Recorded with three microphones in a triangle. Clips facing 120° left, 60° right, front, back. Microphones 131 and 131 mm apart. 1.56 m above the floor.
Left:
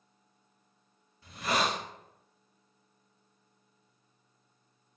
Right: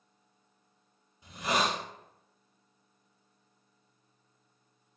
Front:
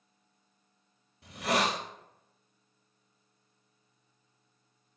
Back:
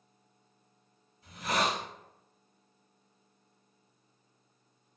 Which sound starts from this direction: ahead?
A hiss, at 1.2 s.